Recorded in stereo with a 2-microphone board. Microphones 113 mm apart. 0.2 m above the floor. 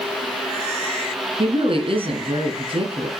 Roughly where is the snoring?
I don't hear snoring.